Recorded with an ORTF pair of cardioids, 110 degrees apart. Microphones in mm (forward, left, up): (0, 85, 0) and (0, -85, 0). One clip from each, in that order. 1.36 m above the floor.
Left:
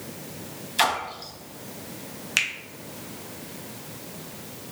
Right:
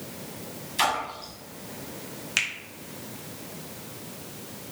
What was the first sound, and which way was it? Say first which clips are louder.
A splash: left 2 dB; 20° left.